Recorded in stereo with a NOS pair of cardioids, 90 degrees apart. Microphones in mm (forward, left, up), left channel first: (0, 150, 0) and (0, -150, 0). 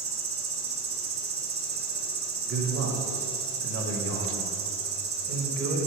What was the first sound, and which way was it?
An insect, 45° right.